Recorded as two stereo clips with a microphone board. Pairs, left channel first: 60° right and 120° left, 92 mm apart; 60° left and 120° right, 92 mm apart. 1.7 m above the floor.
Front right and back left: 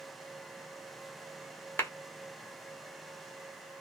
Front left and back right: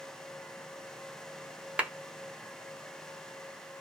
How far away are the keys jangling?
I don't hear keys jangling.